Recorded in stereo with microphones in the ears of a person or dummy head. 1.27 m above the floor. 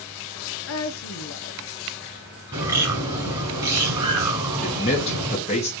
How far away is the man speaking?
About 1.0 m.